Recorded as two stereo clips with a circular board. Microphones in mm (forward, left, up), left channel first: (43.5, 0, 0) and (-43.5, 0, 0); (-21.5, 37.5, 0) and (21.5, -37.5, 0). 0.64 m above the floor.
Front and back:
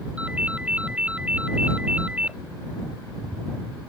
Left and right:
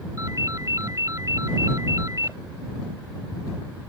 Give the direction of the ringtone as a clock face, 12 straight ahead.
4 o'clock.